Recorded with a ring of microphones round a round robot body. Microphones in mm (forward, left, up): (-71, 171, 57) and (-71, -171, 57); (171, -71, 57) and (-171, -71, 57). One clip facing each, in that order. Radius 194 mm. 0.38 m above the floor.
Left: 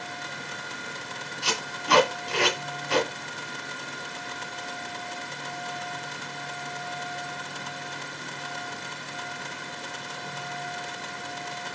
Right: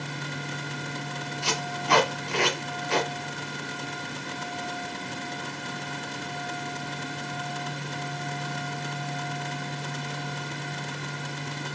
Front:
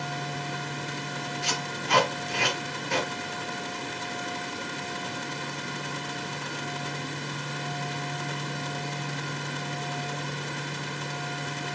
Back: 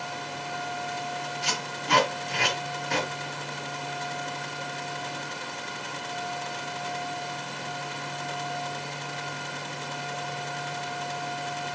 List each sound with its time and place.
1.4 s tape being pulled: 155° left, 1.9 m